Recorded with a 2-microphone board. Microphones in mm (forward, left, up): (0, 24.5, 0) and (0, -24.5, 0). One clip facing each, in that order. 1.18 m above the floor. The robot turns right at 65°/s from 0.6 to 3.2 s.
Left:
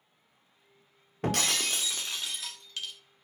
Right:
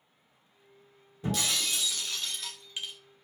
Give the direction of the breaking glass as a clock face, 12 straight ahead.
9 o'clock.